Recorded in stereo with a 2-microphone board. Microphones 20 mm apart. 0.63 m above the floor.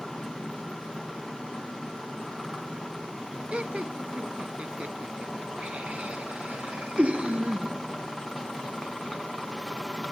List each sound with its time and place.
3.5 s laughter: 70° right (ahead or behind); by 7.7 s 80° right